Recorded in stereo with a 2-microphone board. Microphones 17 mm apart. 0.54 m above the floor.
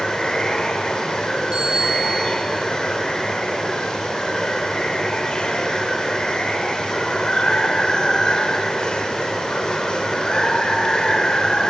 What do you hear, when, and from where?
0.0 s running water: 55° left (ahead or behind), 1.4 m
1.5 s a bicycle bell: 45° right (ahead or behind), 7.5 m